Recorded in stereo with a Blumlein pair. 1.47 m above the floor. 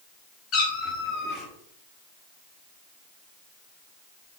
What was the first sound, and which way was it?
A cat meowing, 30° left.